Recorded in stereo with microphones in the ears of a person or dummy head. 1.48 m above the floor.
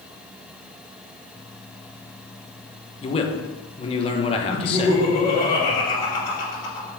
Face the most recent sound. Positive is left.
turn(degrees=35)  # may be behind; listen again after turning